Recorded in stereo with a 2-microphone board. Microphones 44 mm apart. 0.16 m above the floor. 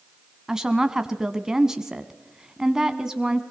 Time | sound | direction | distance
0.5 | a woman speaking | 15° right (ahead or behind) | 1.1 m